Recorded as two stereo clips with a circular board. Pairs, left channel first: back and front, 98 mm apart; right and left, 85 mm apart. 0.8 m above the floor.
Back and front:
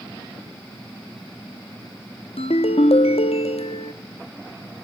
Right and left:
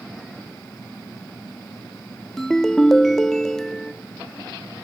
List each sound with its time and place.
2.4 s a ringtone: 175° right, 0.6 m